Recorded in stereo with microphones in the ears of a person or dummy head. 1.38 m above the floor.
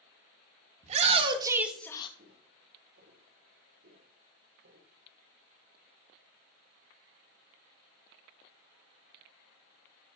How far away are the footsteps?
About 3 m.